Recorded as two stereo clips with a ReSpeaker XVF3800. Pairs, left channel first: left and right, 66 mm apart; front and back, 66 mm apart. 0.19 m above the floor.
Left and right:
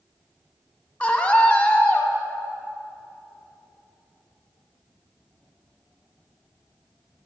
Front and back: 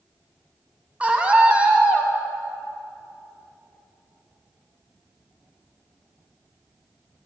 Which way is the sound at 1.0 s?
135° left.